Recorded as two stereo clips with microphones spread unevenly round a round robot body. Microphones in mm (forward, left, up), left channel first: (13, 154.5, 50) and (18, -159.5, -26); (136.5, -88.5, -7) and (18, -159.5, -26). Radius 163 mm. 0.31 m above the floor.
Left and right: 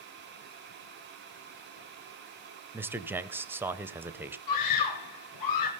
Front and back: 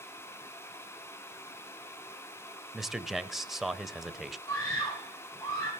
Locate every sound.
2.7 s a man speaking: 85° right, 1.0 m
4.5 s a scream: 110° left, 1.6 m